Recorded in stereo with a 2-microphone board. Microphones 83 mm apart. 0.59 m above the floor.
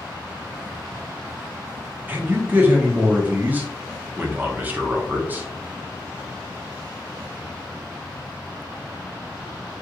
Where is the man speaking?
20° right (ahead or behind), 0.7 m.